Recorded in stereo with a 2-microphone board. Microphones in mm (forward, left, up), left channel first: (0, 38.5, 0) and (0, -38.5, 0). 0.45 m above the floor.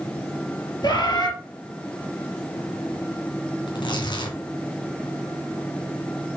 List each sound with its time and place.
0.8 s a bird: 60° left (ahead or behind), 4.5 m
3.7 s tearing paper: 70° left (ahead or behind), 3 m